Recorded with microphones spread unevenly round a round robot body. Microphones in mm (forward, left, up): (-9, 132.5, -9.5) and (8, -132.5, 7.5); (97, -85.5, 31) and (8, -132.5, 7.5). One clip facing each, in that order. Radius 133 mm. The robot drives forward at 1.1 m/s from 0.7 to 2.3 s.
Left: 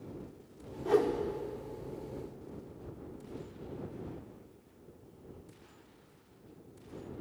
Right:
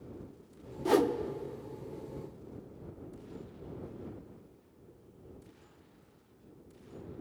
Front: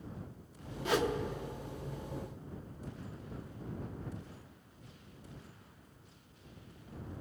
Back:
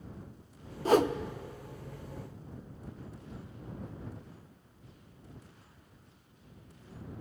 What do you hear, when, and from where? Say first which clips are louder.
0.8 s a whoosh: right 1 dB, back 7 dB; 95° right, 0.6 m; by 1.1 s 120° right, 0.7 m